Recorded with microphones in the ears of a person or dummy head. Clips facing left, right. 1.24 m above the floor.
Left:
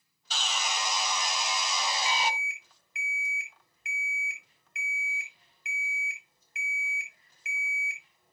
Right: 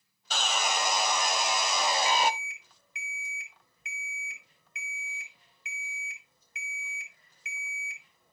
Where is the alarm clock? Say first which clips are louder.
Right 4 dB; 80° right, 3.5 m.